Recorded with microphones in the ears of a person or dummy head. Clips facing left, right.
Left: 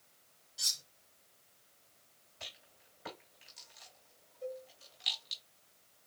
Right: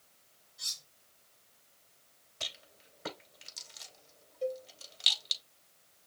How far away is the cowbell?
About 3 m.